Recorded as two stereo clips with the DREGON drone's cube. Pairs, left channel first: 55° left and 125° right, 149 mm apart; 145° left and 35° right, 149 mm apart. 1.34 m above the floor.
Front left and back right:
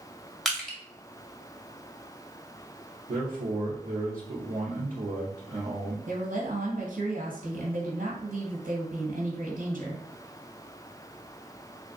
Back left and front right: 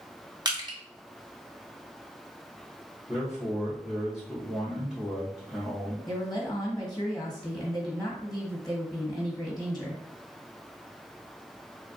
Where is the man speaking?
120° right, 0.7 m.